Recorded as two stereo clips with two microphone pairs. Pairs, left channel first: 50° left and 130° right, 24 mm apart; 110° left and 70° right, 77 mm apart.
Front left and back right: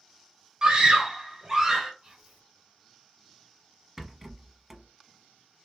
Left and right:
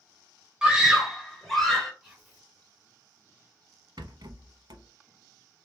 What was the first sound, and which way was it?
A scream, 140° right.